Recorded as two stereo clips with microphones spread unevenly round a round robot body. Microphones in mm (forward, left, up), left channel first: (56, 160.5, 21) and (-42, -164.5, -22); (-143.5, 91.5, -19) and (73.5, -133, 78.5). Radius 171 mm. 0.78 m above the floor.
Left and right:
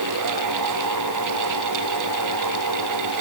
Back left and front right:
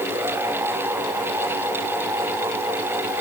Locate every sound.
Only background noise.